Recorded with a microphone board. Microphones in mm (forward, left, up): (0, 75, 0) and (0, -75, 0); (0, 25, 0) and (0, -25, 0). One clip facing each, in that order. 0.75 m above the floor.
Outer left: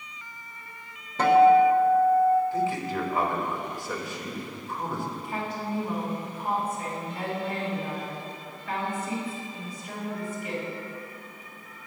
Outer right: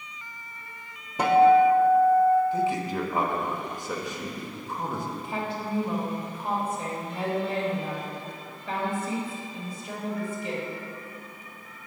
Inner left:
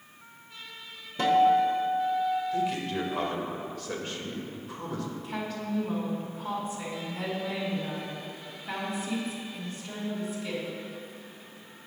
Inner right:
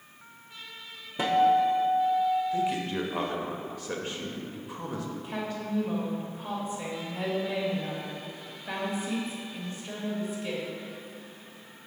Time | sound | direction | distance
1.2 | a guitar | 15° right (ahead or behind) | 0.8 m
2.5 | a man speaking | 20° right (ahead or behind) | 1.0 m
5.2 | a woman speaking | 30° right (ahead or behind) | 2.5 m